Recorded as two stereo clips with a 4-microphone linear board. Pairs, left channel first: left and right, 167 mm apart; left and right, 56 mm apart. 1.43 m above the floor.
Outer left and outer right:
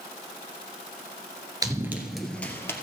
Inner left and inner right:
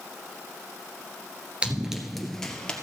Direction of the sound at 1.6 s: 20° right (ahead or behind).